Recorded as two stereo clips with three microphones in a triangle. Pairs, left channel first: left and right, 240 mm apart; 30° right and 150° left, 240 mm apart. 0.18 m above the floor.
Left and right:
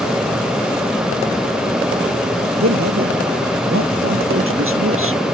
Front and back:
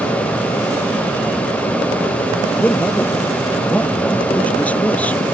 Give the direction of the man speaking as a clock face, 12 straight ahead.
4 o'clock.